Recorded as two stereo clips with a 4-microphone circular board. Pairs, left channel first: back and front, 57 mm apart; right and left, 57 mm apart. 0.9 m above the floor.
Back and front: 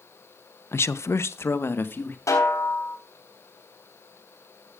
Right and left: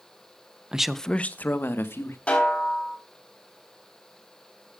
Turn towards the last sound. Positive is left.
turn(degrees=-155)